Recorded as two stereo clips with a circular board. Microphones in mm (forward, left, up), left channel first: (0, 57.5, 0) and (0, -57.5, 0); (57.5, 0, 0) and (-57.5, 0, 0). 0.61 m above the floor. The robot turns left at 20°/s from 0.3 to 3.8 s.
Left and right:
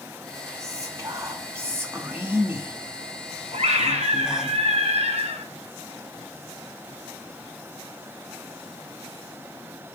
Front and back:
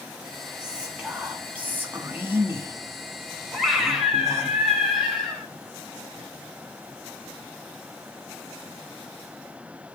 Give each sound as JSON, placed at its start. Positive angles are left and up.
{"t": 0.6, "sound": "whispering", "azimuth_deg": -105, "distance_m": 1.1}
{"t": 3.5, "sound": "a scream", "azimuth_deg": -90, "distance_m": 4.0}